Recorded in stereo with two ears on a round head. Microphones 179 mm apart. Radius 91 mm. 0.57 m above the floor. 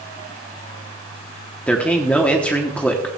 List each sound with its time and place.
1.7 s a man speaking: 5° left (ahead or behind), 0.9 m